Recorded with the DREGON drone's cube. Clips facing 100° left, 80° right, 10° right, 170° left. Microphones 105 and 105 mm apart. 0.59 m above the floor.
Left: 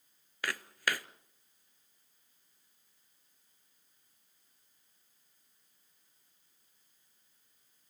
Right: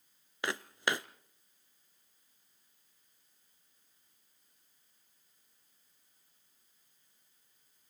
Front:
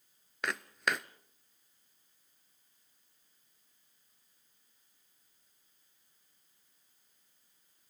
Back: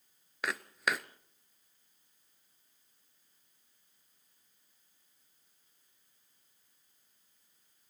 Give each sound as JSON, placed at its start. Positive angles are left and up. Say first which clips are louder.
{"t": 0.4, "sound": "footsteps", "louder": "right 2 dB, even", "azimuth_deg": -105, "distance_m": 0.6}